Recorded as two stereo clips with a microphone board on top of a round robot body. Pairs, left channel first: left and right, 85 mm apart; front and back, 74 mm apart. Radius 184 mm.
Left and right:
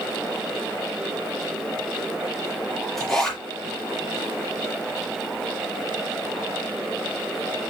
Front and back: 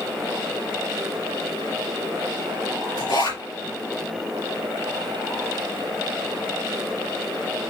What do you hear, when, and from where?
3.0 s a zipper: 5° left, 4.5 m